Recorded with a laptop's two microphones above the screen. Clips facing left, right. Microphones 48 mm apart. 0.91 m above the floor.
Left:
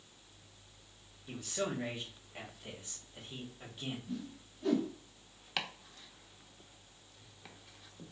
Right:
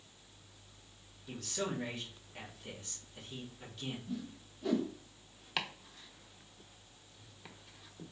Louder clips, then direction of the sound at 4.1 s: Even; centre (ahead or behind).